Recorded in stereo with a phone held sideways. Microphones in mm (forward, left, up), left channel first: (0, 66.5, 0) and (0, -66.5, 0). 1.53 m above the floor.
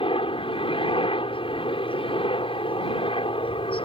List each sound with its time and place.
0.0 s a helicopter: 45° left (ahead or behind)